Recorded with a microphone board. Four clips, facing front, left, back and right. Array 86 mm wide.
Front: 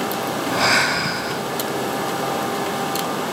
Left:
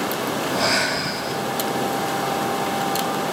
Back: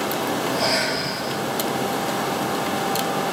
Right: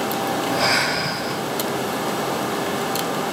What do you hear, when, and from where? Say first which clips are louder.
0.5 s breathing: even, front 3 dB; 5° right, 1.8 m